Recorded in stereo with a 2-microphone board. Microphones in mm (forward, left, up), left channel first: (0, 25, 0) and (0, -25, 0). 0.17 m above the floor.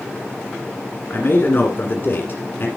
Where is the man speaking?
45° left (ahead or behind), 1.5 m.